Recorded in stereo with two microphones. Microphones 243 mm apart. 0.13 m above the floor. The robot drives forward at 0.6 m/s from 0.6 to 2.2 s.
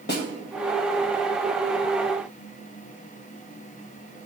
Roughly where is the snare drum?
Left.